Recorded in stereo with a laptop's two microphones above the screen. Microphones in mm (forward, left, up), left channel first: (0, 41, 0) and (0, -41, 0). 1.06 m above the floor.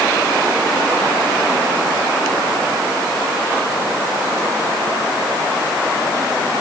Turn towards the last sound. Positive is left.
No sound to turn to.